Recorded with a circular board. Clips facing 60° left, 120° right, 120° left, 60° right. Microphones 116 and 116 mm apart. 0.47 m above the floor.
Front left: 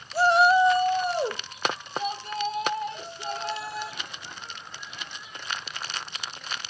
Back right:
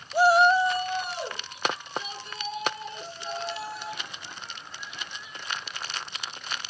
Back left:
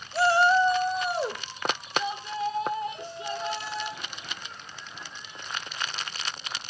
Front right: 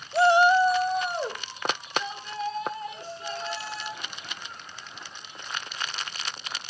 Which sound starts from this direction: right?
A shout, at 0.1 s.